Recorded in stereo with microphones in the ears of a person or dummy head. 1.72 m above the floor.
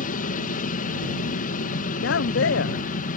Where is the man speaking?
65° left (ahead or behind).